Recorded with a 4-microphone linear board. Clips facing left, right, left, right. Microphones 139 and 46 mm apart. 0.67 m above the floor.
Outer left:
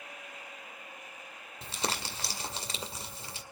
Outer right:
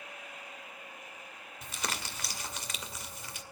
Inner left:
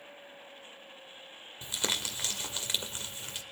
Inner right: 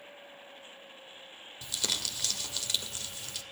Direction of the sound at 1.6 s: 30° left (ahead or behind).